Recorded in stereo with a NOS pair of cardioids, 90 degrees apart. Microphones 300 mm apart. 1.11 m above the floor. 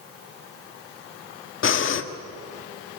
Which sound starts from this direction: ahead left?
Breathing, at 1.6 s.